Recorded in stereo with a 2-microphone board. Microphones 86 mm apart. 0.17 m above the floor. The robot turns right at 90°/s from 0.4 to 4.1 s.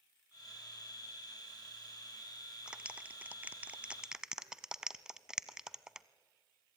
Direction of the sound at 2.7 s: 10° right (ahead or behind).